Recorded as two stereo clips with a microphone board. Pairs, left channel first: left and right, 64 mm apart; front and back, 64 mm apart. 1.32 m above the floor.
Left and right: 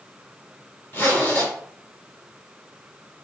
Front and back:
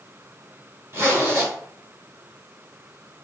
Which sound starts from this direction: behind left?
A zipper, at 0.9 s.